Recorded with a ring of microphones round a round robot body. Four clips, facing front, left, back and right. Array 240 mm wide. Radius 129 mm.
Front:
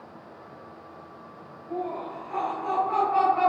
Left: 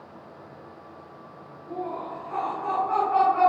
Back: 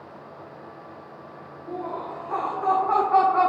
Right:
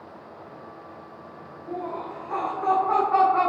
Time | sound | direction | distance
1.7 | laughter | 145° right | 7.5 m